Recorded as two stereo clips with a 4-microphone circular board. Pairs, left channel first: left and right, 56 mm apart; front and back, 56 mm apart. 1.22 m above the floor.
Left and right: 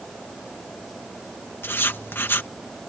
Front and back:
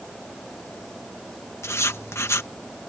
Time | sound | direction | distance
1.6 | writing | 40° left | ?